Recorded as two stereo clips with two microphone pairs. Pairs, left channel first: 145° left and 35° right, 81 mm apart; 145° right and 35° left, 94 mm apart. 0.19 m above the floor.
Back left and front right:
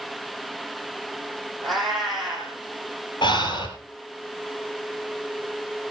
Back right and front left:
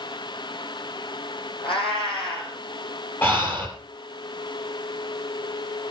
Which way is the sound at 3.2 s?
150° left.